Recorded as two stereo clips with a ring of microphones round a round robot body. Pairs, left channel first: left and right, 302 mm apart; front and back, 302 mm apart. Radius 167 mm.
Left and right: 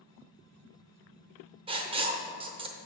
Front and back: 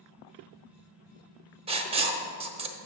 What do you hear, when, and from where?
1.7 s writing: 135° right, 0.8 m